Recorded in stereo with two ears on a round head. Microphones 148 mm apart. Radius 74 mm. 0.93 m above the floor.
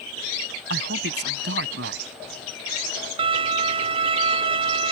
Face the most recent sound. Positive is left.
turn(degrees=-35)  # may be behind; listen again after turning